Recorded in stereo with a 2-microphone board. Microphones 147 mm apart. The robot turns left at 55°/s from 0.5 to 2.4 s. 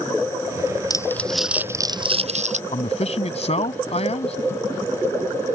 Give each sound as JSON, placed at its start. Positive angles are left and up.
{"t": 0.9, "sound": "crumpling", "azimuth_deg": 25}
{"t": 2.7, "sound": "a man speaking", "side_deg": 50}